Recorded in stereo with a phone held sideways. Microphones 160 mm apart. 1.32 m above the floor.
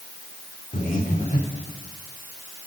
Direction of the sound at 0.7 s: 55° left (ahead or behind).